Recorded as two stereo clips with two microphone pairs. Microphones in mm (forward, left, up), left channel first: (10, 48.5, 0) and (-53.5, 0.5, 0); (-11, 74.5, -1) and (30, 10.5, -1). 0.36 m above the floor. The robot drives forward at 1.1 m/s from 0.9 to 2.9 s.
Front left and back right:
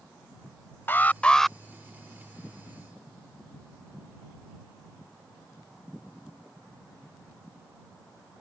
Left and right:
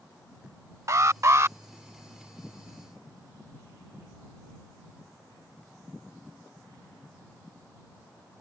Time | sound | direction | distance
0.9 | an alarm | 20° right | ?